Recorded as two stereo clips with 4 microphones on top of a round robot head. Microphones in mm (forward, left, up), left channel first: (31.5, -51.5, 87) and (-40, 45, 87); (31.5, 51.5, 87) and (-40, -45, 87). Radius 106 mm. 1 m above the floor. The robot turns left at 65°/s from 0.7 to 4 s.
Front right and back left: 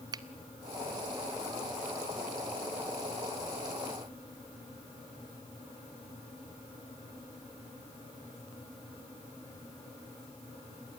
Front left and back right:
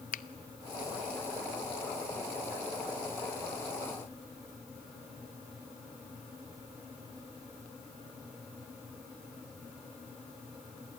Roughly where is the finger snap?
Ahead left.